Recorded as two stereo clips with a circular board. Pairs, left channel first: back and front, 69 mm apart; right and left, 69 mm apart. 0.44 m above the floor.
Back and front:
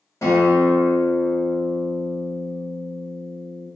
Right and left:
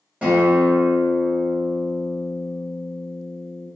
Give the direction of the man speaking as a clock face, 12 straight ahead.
I don't hear a man speaking.